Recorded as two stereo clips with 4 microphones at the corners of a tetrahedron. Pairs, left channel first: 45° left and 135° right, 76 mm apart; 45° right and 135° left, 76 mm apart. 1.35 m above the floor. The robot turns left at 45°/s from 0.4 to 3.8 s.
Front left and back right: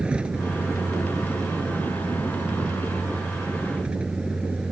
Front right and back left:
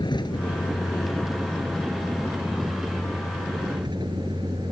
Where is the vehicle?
60° right; by 4.7 s 150° left.